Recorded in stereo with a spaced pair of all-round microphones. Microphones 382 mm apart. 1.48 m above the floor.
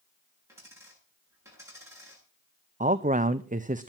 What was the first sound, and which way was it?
A dropped coin, 10° right (ahead or behind).